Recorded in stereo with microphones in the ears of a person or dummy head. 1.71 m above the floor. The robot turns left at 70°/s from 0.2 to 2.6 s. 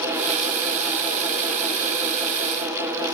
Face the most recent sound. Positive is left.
No sound to turn to.